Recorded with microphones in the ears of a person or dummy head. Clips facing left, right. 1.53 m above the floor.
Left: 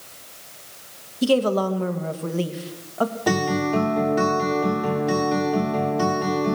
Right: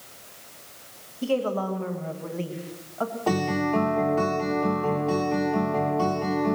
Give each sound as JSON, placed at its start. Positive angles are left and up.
{"t": 1.2, "sound": "a woman speaking", "side_deg": 55, "distance_m": 1.8}
{"t": 3.3, "sound": "a guitar", "side_deg": 20, "distance_m": 3.0}